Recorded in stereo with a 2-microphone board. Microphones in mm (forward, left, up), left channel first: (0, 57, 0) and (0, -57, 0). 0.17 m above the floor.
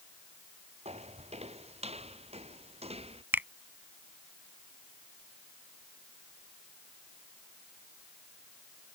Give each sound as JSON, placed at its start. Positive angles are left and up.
{"t": 0.8, "sound": "footsteps", "side_deg": -60}
{"t": 3.3, "sound": "a finger snap", "side_deg": -15}